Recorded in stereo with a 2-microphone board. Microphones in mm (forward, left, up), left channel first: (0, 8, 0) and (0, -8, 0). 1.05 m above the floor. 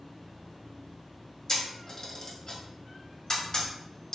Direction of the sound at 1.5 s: 45° left (ahead or behind).